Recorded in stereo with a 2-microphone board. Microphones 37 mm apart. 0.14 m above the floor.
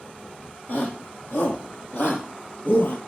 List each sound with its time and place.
0.7 s a shout: 60° left (ahead or behind), 5 m; by 3.0 s 65° left (ahead or behind), 3 m